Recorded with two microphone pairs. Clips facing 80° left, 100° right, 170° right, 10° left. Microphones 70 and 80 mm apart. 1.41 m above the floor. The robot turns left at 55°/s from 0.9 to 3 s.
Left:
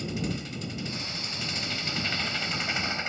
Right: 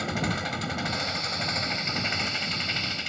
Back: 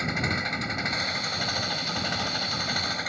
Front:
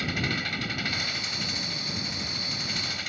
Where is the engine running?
105° right; by 3.1 s 140° left.